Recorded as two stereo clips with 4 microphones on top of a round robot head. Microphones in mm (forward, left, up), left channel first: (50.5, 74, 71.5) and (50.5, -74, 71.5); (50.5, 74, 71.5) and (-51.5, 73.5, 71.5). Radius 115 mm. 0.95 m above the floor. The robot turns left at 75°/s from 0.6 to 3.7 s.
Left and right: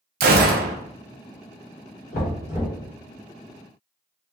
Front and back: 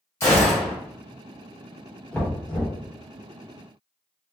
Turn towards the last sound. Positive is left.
turn(degrees=-35)